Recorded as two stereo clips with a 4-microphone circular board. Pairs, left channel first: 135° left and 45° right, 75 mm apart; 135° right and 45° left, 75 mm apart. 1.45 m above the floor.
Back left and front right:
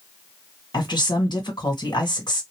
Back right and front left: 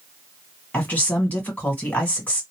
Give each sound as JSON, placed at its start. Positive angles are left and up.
{"t": 0.7, "sound": "a woman speaking", "azimuth_deg": 155, "distance_m": 1.6}